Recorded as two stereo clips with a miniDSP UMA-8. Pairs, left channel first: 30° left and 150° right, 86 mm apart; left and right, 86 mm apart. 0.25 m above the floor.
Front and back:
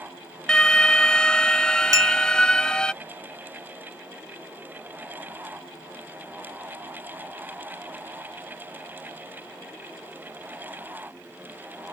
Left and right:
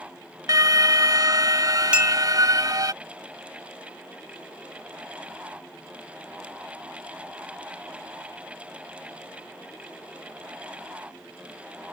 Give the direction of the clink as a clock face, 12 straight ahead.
5 o'clock.